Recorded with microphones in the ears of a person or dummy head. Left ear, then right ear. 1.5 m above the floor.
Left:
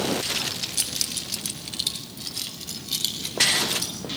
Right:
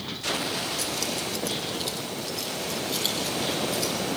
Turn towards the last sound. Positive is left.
turn(degrees=25)  # may be behind; listen again after turning